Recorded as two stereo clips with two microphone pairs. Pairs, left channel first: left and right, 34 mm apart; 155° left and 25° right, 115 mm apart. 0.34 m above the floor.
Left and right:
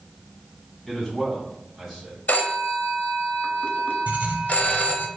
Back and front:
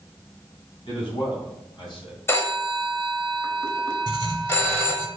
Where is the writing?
65° right, 0.8 m.